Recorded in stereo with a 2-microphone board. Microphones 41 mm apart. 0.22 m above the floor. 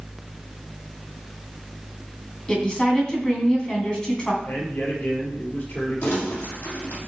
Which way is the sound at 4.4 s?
55° left (ahead or behind).